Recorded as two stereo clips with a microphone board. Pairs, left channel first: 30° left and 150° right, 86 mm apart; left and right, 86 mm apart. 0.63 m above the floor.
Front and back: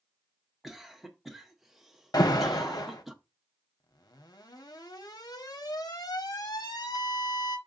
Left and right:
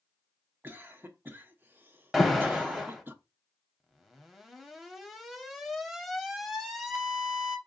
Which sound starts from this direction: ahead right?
A cough, at 0.6 s.